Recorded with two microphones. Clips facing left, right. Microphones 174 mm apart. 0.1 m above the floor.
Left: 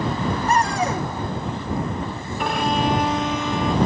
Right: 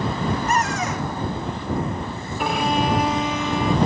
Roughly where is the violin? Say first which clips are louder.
Even; centre.